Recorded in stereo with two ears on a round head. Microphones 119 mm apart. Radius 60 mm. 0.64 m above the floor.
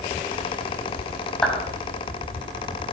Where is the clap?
5° left (ahead or behind), 3.5 m.